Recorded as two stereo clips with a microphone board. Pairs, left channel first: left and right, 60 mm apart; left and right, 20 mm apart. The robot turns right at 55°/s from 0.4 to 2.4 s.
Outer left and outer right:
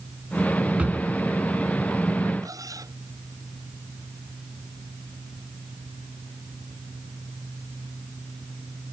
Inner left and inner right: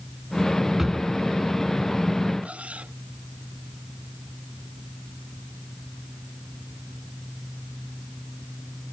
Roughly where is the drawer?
Right.